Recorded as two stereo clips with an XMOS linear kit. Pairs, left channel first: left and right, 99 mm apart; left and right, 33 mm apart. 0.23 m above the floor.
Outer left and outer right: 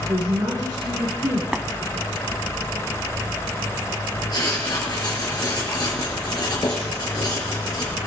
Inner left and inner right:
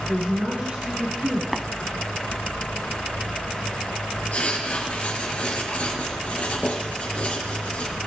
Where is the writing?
45° left (ahead or behind), 5.5 m.